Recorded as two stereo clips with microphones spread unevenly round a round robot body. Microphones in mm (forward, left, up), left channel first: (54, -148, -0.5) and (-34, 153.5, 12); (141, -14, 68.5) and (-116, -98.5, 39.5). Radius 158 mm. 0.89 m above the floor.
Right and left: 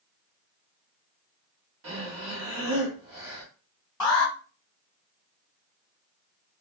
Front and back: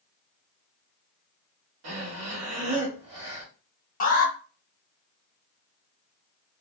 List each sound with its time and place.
1.8 s breathing: 155° left, 1.2 m
4.0 s an alarm: 10° right, 1.2 m